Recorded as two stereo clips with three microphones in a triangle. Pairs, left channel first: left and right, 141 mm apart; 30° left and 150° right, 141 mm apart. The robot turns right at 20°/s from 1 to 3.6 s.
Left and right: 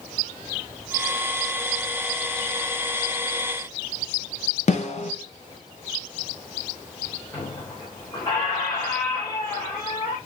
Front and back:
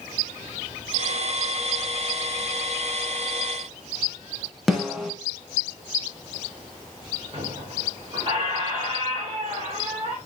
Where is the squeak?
155° left, 3.5 m.